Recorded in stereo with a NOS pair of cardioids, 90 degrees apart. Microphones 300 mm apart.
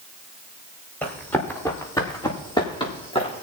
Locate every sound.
1.0 s running footsteps: 5° left, 6.5 m; by 3.4 s 20° left, 6.5 m